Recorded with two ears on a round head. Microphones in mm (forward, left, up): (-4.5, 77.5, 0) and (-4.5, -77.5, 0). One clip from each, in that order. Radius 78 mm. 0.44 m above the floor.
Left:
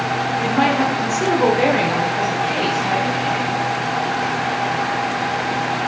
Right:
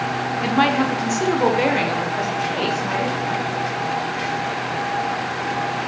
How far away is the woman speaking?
About 0.9 m.